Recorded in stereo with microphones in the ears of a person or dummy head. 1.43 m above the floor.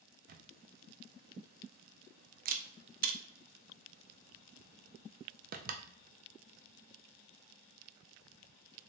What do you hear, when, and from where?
0.3 s a camera shutter: 40° right (ahead or behind), 0.5 m